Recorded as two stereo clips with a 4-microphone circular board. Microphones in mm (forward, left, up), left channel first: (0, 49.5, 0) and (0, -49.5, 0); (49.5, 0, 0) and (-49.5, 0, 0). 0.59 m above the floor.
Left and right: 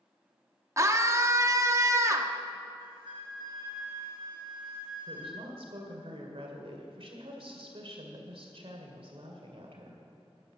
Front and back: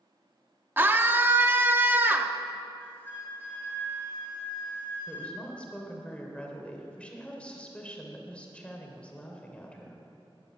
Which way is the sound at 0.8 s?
125° right.